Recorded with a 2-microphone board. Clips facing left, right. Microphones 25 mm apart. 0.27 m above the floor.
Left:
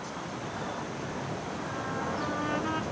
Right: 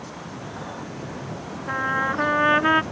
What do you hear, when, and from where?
1.7 s a trumpet: 80° right